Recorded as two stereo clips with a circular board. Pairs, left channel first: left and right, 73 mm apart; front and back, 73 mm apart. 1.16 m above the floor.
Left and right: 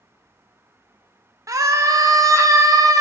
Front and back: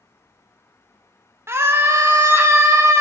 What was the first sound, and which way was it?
A scream, 130° right.